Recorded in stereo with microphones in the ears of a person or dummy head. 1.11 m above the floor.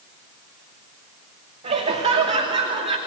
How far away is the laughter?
About 2.5 m.